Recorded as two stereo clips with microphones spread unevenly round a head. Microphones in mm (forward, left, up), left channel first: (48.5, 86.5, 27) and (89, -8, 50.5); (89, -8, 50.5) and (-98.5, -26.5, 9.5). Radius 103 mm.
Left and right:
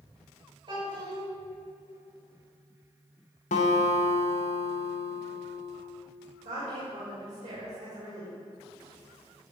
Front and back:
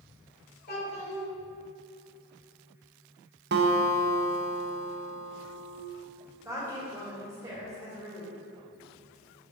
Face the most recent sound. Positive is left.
turn(degrees=-100)